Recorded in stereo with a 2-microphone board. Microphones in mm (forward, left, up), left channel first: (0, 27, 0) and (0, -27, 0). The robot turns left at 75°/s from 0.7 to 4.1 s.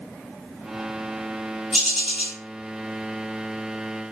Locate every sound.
1.7 s a bird: 5° right (ahead or behind), 1.8 m; by 2.4 s 20° left (ahead or behind), 1.8 m